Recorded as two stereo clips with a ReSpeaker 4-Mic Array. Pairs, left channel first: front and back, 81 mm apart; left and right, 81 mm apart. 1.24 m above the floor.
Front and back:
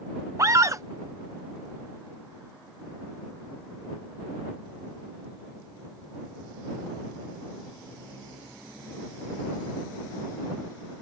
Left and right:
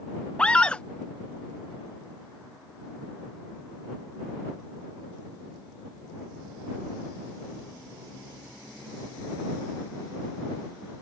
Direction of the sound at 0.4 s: 160° left.